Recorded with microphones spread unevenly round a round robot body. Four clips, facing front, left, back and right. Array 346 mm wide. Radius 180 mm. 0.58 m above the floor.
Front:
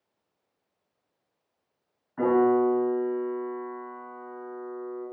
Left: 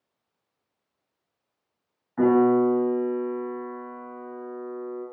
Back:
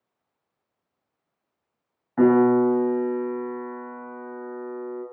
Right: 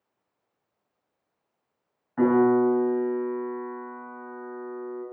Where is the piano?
170° right, 5.5 m.